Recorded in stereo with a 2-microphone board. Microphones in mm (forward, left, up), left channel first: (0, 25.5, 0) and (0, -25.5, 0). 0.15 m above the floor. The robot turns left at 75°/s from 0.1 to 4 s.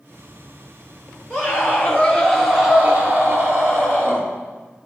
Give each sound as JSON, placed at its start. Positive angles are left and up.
{"t": 1.3, "sound": "a scream", "azimuth_deg": 80, "distance_m": 3.0}